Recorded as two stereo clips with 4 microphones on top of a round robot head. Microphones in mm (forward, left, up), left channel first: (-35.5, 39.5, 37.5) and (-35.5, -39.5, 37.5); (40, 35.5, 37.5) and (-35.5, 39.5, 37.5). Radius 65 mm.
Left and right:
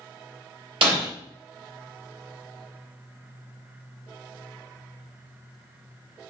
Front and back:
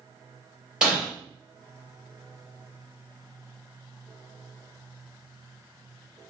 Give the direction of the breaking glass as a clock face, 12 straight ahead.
3 o'clock.